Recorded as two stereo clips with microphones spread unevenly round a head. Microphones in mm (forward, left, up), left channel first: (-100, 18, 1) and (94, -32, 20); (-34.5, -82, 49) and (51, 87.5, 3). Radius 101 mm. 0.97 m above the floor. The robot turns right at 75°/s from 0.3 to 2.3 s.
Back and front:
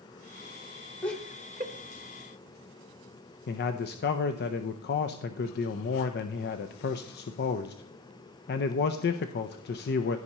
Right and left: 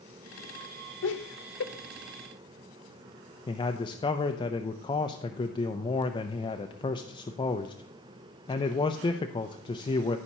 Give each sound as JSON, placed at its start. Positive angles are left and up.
{"t": 1.0, "sound": "laughter", "azimuth_deg": -120, "distance_m": 1.2}
{"t": 3.5, "sound": "a man speaking", "azimuth_deg": 170, "distance_m": 0.6}